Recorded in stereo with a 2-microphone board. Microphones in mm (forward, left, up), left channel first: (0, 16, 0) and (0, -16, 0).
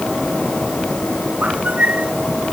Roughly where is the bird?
Right.